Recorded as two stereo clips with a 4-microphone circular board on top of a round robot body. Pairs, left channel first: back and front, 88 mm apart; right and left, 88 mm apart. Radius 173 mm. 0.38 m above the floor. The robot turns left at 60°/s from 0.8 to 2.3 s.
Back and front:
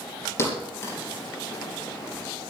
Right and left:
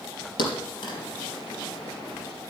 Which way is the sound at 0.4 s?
120° right.